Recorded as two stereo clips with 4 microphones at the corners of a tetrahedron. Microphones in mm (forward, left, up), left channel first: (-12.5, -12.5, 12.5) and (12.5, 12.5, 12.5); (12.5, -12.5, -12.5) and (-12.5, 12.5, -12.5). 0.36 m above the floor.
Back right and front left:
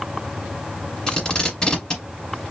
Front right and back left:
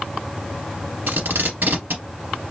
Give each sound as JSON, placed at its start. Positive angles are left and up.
{"t": 1.1, "sound": "tape being pulled", "azimuth_deg": 155, "distance_m": 1.3}